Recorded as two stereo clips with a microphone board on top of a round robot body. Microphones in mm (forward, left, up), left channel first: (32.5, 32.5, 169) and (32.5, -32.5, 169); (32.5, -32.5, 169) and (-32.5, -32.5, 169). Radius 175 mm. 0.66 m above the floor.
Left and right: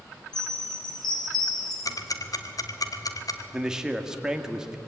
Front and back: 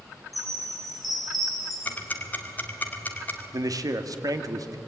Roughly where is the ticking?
Ahead left.